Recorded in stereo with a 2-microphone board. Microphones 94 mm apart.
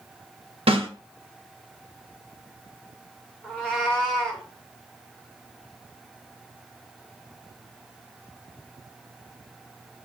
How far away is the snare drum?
About 1.2 m.